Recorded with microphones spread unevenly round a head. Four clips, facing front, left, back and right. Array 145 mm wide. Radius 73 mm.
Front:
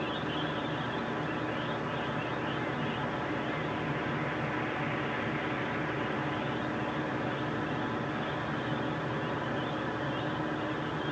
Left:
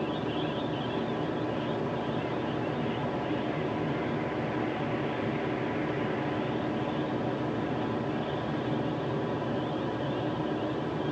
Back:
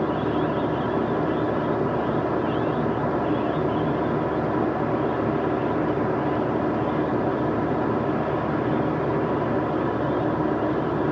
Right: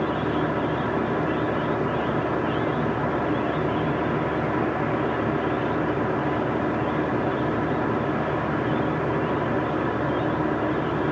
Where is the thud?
No thud in this recording.